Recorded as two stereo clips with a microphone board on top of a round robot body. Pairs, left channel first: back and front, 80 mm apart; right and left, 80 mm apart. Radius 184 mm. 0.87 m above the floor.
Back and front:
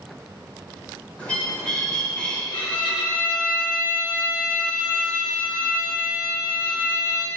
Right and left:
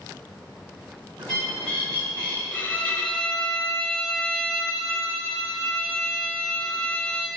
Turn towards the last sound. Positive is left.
turn(degrees=-160)